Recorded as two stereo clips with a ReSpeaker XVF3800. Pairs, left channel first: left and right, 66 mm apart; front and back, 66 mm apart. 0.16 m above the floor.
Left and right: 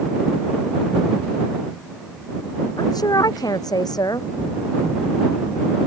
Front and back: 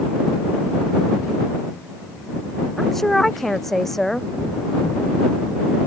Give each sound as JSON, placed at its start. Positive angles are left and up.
{"t": 2.8, "sound": "a woman speaking", "azimuth_deg": 85}